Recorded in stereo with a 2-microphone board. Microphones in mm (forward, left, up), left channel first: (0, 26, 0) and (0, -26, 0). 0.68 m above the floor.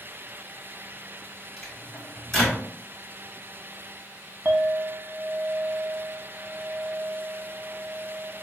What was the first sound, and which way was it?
A microwave, 5° left (ahead or behind).